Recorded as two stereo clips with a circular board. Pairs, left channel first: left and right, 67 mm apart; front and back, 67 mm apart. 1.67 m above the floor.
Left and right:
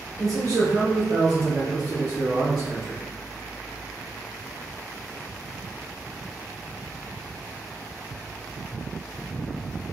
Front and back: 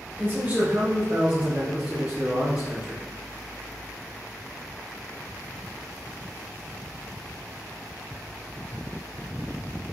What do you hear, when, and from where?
0.2 s a man speaking: 120° right, 0.9 m; by 3.0 s 105° right, 2.5 m